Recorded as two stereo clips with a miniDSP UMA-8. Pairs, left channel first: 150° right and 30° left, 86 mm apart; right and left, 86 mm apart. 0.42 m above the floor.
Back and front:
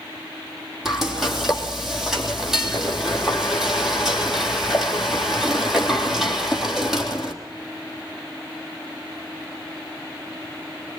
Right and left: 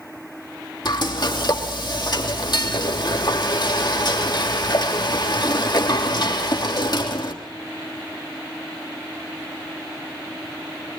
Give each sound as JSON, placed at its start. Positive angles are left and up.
{"t": 0.8, "sound": "frying", "azimuth_deg": -55, "distance_m": 3.0}